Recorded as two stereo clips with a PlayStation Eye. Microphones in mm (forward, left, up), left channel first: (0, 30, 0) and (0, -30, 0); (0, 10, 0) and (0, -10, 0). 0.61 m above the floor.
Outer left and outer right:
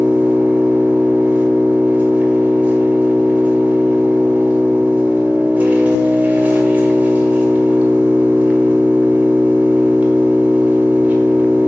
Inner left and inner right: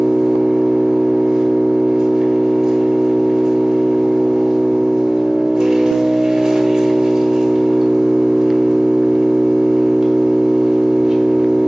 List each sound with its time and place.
0.0 s an engine running: 25° right (ahead or behind), 1.6 m